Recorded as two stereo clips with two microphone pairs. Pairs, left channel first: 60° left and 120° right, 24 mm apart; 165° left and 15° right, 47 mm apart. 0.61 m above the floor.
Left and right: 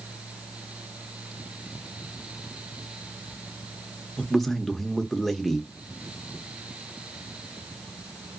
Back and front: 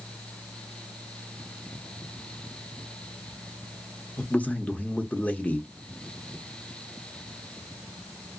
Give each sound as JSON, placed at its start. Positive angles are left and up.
{"t": 4.2, "sound": "a man speaking", "azimuth_deg": 135, "distance_m": 0.7}